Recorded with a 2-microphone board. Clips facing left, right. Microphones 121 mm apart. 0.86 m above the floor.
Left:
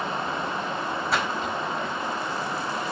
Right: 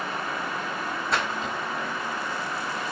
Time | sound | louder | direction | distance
1.1 | a splash | even | centre (ahead or behind) | 4 m